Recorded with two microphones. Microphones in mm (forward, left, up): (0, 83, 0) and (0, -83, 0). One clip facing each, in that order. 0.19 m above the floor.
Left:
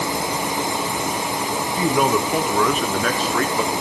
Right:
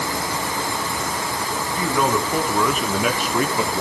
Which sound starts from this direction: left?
A man speaking, at 1.8 s.